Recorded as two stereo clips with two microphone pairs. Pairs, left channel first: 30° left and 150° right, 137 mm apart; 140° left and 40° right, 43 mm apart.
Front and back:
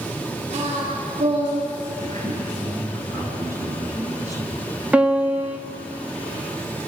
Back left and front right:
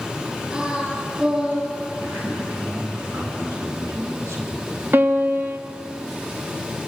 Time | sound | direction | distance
0.5 | singing | 105° right | 9.5 m
2.0 | a man speaking | 35° right | 8.5 m
4.9 | a piano | 70° right | 1.3 m